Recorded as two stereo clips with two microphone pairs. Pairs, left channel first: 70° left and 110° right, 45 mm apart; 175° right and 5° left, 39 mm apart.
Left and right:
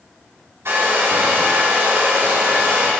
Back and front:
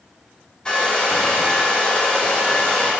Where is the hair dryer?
105° right, 2 m.